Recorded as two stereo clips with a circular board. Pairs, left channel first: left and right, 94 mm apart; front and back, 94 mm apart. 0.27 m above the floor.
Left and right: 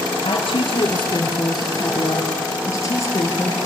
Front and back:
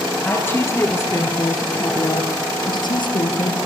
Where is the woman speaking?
70° left, 4.5 m; by 3.6 s 25° left, 5 m.